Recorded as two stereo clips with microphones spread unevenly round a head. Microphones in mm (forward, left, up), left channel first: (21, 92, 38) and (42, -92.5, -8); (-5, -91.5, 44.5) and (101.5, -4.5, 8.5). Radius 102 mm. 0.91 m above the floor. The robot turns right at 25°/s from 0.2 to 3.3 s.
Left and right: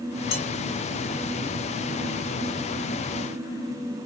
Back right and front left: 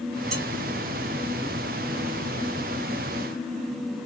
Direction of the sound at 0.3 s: 85° left.